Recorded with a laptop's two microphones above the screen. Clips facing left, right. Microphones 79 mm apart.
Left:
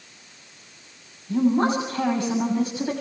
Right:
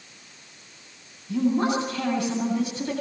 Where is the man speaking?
30° left (ahead or behind), 7.5 m.